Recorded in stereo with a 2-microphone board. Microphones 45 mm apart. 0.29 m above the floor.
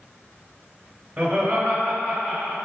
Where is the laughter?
20° right (ahead or behind), 0.9 m; by 2.5 s centre (ahead or behind), 1.5 m.